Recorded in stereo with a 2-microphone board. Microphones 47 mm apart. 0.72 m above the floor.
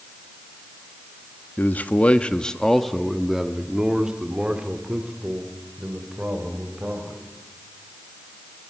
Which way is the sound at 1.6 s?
50° left (ahead or behind).